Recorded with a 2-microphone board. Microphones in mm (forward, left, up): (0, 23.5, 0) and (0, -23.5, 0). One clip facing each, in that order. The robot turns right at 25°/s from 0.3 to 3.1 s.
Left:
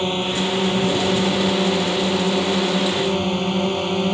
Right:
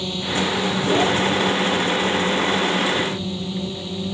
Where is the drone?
45° left; by 4.1 s 115° left.